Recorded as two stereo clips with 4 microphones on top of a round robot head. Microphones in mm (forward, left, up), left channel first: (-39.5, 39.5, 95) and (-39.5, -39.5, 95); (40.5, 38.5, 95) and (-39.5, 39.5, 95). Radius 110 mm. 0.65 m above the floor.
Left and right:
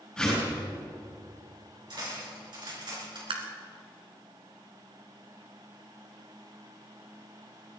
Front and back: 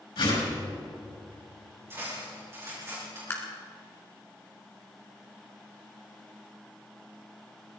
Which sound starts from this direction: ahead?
A whoosh, at 0.2 s.